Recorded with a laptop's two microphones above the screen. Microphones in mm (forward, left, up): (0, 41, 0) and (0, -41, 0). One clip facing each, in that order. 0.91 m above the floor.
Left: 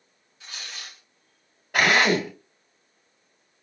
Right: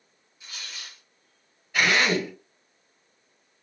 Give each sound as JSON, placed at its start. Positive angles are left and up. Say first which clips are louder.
{"t": 0.4, "sound": "tearing paper", "louder": "left 2 dB", "side_deg": 80, "distance_m": 2.5}
{"t": 1.7, "sound": "a drill", "louder": "left 3 dB", "side_deg": 65, "distance_m": 2.5}